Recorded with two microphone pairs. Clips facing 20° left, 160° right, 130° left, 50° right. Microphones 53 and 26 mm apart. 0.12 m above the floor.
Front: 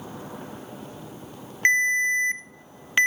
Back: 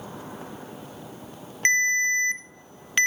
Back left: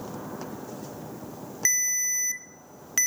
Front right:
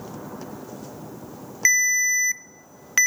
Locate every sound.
1.6 s a ringtone: 35° right, 0.5 m